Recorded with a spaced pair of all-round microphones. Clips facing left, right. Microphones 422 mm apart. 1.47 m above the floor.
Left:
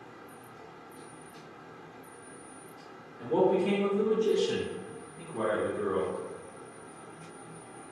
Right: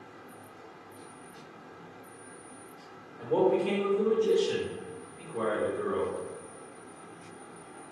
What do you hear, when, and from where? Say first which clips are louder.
3.2 s a man speaking: even; 25° left (ahead or behind), 0.9 m; by 6.1 s 40° left (ahead or behind), 1.1 m